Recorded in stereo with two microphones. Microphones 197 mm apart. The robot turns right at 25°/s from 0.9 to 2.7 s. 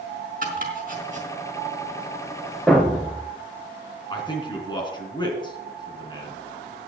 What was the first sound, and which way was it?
Chopping, 45° right (ahead or behind).